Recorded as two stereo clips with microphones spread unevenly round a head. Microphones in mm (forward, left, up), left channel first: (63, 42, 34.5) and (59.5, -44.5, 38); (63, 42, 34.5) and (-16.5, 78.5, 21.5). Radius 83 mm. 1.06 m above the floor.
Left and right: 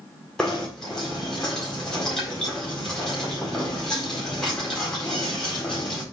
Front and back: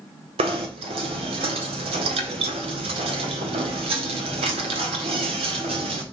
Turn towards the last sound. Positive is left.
turn(degrees=175)